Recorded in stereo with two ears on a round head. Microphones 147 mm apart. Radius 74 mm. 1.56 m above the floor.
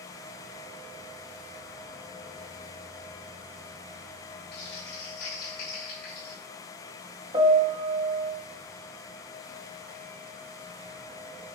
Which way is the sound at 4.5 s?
65° left (ahead or behind).